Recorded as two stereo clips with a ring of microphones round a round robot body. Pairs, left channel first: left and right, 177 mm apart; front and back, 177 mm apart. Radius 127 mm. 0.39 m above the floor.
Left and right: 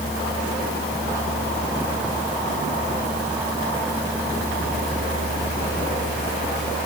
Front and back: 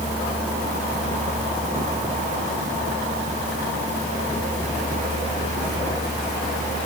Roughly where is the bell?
No bell in this recording.